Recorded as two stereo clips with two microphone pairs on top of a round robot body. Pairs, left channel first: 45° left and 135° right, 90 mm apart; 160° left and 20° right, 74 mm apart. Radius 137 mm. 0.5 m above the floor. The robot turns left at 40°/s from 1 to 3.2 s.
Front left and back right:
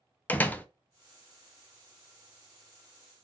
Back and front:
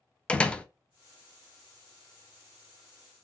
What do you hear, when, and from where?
0.3 s a door slam: 115° left, 0.5 m